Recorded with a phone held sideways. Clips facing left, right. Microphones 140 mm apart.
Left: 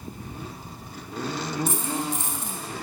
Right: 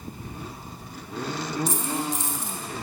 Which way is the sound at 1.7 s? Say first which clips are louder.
Even; 60° left (ahead or behind).